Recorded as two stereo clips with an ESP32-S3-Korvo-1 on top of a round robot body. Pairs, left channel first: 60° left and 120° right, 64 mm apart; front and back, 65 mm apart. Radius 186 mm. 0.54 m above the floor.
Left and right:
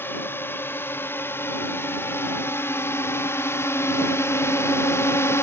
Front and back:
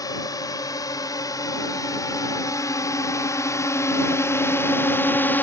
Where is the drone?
5° left; by 5.4 s 45° left.